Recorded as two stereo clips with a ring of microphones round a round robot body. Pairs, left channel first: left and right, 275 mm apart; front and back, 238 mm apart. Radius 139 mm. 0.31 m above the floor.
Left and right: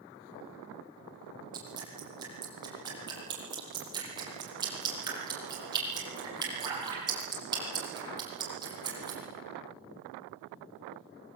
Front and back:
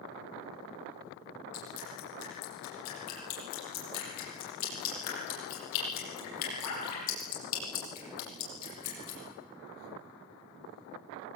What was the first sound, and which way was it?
Dripping, 15° right.